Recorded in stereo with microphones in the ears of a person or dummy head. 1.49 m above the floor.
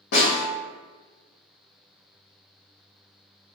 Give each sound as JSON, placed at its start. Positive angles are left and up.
{"t": 0.1, "sound": "a snare drum", "side_deg": 65, "distance_m": 1.0}